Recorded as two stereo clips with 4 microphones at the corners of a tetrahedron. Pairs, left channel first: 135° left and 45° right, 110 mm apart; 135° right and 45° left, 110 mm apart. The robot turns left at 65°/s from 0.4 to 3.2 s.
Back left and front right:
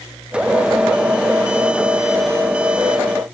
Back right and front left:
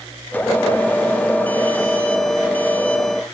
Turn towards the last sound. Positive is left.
No sound to turn to.